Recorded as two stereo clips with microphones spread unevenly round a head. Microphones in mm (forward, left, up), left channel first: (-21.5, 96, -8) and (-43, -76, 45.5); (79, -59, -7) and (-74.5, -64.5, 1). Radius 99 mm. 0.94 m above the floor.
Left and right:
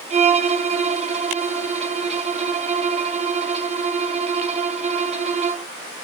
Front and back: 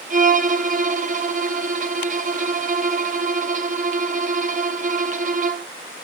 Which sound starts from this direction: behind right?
A violin, at 0.1 s.